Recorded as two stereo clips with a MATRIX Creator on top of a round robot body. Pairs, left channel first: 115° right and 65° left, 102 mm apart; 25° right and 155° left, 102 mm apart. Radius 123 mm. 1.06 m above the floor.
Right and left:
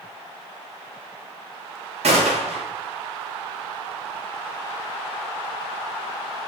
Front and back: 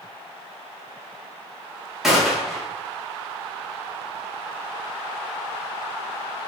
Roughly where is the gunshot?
Left.